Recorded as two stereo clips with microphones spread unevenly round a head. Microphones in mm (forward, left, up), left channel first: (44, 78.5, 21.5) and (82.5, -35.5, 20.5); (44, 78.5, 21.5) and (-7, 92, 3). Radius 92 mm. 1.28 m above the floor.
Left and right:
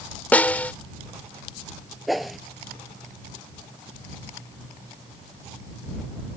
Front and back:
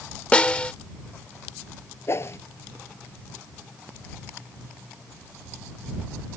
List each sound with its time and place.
0.3 s a snare drum: 35° left
2.1 s a whoosh: 20° left